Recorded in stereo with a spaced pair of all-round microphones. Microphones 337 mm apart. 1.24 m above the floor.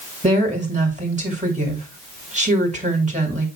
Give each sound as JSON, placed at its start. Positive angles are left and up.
{"t": 0.2, "sound": "a woman speaking", "side_deg": -20, "distance_m": 2.0}